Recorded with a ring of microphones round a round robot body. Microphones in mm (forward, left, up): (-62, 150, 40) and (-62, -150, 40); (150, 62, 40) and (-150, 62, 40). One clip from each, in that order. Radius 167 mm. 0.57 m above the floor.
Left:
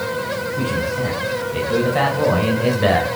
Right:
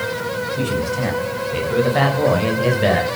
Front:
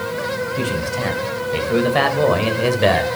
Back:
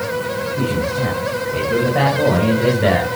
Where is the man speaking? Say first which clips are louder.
Left 1 dB, back 2 dB; 20° right, 3.5 m; by 3.1 s 5° left, 3 m.